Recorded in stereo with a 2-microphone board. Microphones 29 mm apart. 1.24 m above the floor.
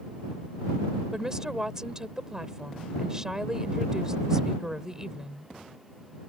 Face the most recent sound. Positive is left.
turn(degrees=-20)  # may be behind; listen again after turning